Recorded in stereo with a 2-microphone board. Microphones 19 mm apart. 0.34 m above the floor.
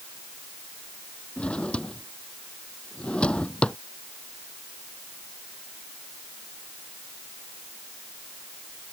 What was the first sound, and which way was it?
A drawer, 80° left.